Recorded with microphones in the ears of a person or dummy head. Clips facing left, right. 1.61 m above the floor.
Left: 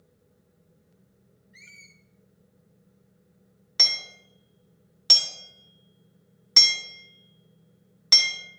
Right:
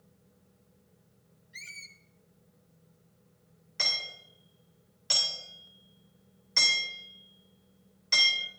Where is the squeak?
40° right (ahead or behind), 1.5 m.